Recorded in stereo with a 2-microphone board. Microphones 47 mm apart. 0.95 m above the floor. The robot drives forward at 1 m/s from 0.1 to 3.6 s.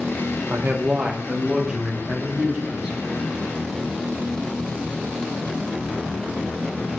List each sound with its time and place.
0.5 s a man speaking: 45° right (ahead or behind), 0.6 m; by 3.0 s 10° right (ahead or behind), 2.5 m